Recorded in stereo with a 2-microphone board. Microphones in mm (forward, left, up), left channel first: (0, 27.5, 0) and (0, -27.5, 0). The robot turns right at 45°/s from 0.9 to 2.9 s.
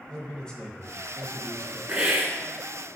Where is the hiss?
15° right (ahead or behind), 1.3 m; by 2.4 s 35° right (ahead or behind), 1.3 m.